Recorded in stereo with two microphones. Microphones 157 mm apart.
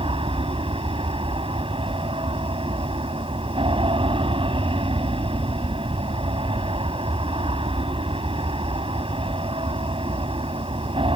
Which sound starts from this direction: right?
An aircraft, at 0.0 s.